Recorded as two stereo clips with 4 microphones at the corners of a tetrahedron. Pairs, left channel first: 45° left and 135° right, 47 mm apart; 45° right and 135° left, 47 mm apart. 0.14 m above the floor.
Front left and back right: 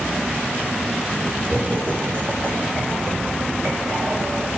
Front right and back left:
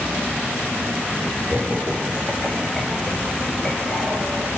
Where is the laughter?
175° right, 2 m; by 4.5 s 90° right, 2.5 m.